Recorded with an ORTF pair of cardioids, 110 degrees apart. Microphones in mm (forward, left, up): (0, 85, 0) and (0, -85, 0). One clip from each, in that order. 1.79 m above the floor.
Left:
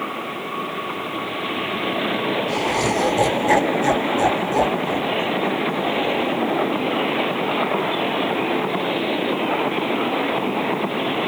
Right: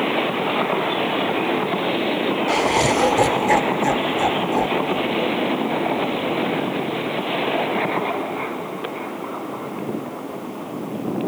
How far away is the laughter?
About 1.1 m.